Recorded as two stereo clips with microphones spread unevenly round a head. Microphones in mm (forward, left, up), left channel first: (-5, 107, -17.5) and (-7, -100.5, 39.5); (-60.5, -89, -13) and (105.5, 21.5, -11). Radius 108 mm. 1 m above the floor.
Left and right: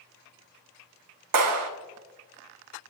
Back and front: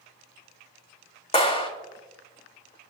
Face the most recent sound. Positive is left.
turn(degrees=-85)